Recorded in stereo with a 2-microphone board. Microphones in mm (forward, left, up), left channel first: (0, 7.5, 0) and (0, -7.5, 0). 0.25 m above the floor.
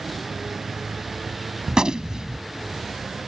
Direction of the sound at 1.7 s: 55° right (ahead or behind).